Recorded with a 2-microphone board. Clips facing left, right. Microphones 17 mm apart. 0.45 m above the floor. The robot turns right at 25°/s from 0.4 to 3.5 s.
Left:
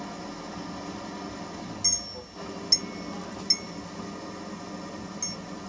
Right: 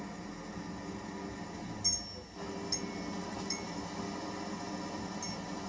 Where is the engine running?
85° left, 1.0 m; by 5.7 s 165° left, 1.0 m.